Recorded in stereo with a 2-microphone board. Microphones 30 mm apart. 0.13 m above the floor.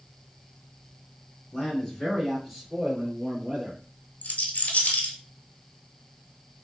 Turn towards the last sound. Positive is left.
turn(degrees=65)  # may be behind; listen again after turning